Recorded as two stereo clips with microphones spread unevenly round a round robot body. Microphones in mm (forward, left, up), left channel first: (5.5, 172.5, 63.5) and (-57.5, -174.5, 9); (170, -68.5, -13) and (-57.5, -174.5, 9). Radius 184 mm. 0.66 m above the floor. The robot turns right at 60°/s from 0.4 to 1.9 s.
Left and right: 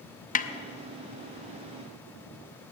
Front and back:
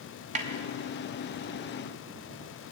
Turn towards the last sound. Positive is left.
turn(degrees=-125)